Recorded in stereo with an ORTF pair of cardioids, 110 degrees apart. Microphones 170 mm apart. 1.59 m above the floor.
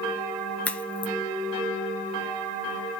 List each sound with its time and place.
0.7 s a crack: 5° left, 1.4 m